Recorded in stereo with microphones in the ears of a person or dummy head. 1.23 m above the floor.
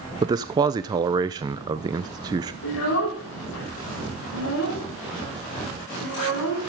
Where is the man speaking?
20° right (ahead or behind), 0.8 m.